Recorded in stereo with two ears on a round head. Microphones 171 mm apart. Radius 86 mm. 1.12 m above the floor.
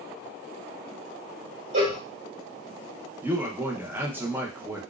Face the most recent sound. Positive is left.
turn(degrees=-10)  # may be behind; listen again after turning